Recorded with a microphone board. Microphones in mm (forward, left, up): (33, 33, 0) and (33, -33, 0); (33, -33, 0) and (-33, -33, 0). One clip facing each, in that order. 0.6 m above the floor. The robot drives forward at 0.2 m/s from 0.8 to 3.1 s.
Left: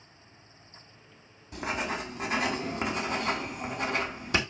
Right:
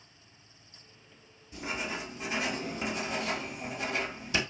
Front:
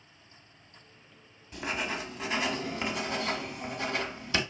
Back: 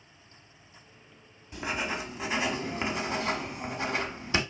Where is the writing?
95° left, 0.8 m; by 4.4 s 115° left, 0.9 m.